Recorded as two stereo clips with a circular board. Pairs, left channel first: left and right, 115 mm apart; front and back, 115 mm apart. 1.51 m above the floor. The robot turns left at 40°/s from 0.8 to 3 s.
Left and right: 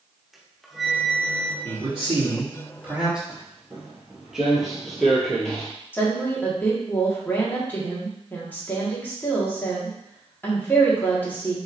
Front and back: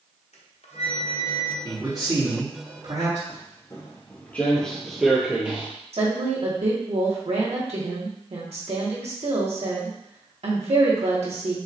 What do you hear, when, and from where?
0.3 s a flute: straight ahead, 0.9 m; by 1.5 s 30° right, 0.9 m
1.6 s a man speaking: 115° right, 2.5 m; by 3.2 s 170° right, 2.5 m
3.3 s footsteps: 15° right, 1.8 m; by 5.7 s 160° left, 1.6 m
5.9 s a woman speaking: 160° left, 1.7 m